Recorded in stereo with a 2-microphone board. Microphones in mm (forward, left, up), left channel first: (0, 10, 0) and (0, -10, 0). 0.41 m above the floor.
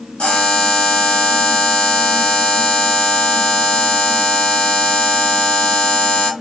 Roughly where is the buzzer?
Left.